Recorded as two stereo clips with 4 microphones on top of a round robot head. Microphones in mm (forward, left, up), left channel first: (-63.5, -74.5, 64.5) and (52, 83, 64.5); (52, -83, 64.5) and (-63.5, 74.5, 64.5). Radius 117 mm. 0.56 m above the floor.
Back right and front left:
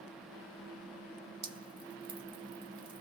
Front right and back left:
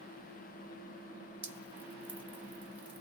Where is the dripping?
55° left, 1.3 m.